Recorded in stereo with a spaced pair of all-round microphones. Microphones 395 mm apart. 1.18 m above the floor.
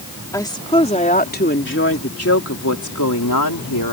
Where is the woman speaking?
10° left (ahead or behind); by 3.9 s 60° left (ahead or behind).